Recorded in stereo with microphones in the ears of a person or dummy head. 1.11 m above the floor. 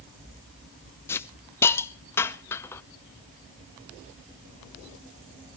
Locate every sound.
1.1 s a hiss: 10° left (ahead or behind), 0.7 m